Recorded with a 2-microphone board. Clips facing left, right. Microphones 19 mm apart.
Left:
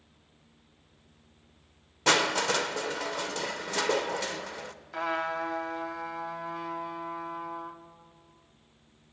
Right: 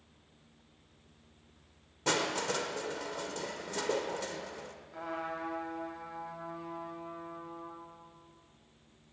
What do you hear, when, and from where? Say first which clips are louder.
2.1 s crushing: left 7 dB; 40° left (ahead or behind), 0.8 m
4.9 s a trumpet: left 8 dB; 55° left (ahead or behind), 1.6 m